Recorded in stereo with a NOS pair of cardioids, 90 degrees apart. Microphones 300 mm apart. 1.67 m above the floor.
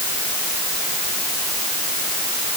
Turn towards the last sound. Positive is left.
No sound to turn to.